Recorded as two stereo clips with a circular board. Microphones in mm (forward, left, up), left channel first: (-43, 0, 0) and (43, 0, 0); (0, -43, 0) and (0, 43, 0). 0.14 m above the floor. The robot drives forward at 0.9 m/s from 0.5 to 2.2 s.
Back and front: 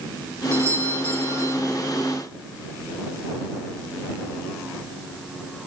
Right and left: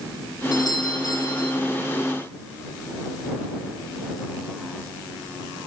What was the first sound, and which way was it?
A doorbell, 55° right.